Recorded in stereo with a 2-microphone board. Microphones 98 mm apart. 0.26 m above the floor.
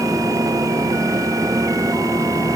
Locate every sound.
Only background noise.